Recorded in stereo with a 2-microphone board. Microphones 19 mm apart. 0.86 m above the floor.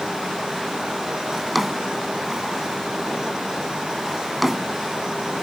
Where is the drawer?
5° right (ahead or behind).